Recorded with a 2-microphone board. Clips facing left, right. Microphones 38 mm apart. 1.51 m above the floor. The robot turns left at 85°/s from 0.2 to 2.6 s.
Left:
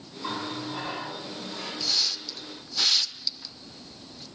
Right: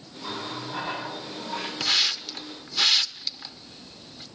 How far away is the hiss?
About 0.6 m.